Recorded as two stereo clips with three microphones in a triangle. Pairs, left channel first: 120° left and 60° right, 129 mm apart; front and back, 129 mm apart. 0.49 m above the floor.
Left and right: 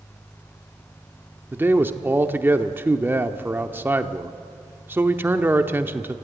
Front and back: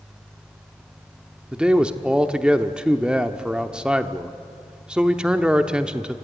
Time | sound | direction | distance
1.5 | a man speaking | 105° right | 0.8 m